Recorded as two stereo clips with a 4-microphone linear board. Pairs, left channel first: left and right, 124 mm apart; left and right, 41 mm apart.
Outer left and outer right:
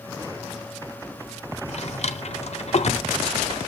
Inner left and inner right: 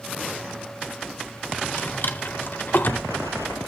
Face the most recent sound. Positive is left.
turn(degrees=60)  # may be behind; listen again after turning